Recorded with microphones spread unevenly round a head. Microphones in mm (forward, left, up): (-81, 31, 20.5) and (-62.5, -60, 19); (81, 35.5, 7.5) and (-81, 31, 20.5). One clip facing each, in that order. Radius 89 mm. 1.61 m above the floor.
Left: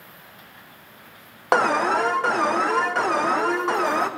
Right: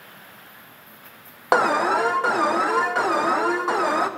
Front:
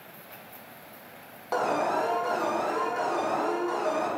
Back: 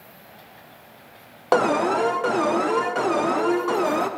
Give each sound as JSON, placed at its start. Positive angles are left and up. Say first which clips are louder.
{"t": 1.5, "sound": "an alarm", "louder": "right 1 dB, back 7 dB", "azimuth_deg": -165, "distance_m": 0.6}